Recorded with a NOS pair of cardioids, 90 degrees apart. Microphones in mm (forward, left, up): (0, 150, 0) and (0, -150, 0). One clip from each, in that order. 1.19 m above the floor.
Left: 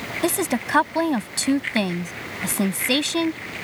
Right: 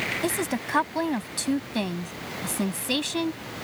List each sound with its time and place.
0.2 s a woman speaking: 40° left